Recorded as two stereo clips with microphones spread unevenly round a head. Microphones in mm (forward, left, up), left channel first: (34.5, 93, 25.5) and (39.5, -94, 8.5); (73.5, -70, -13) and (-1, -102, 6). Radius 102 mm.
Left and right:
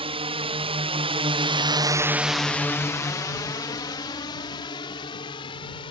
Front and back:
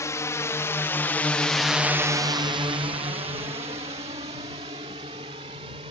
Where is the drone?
30° right; by 5.9 s 160° left.